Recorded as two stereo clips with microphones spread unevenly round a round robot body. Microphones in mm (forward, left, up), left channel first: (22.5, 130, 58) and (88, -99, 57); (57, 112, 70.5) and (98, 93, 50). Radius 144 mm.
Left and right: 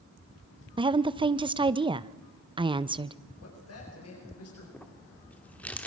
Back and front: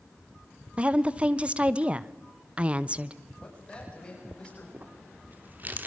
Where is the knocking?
No knocking in this recording.